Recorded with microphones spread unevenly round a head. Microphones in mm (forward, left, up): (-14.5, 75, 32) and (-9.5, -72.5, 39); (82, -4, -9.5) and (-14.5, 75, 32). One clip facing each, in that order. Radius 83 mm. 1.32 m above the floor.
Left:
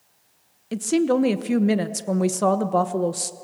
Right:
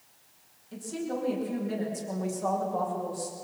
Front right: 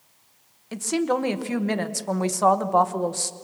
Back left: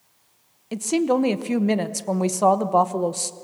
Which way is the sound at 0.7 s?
70° left.